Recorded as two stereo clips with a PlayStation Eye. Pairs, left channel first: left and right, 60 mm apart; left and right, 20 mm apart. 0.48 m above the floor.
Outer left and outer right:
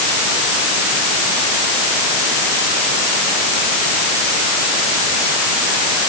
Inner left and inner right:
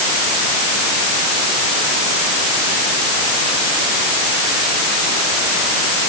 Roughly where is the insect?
I don't hear an insect.